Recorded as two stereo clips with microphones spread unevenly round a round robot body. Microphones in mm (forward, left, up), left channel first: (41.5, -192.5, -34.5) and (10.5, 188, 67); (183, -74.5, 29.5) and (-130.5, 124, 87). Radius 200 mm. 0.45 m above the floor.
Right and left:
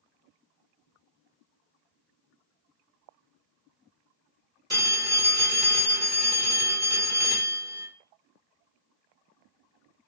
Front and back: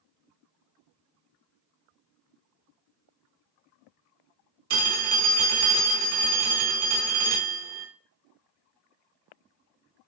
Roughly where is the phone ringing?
Behind.